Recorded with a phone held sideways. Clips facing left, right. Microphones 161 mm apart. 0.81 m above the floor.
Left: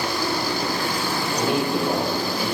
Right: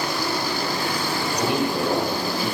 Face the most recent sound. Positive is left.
turn(degrees=15)  # may be behind; listen again after turning